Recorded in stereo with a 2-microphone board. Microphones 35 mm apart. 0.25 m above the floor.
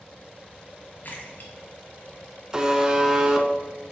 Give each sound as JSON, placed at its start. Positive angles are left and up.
{"t": 1.0, "sound": "a splash", "side_deg": 50, "distance_m": 2.0}
{"t": 2.5, "sound": "a buzzer", "side_deg": -20, "distance_m": 1.0}